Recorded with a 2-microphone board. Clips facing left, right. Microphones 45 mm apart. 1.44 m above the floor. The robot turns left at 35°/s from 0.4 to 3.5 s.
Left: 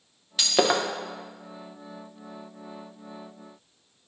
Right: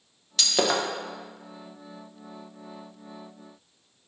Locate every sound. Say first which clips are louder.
0.4 s breaking glass: left 2 dB; 10° left (ahead or behind), 0.6 m; by 0.8 s 20° left (ahead or behind), 0.6 m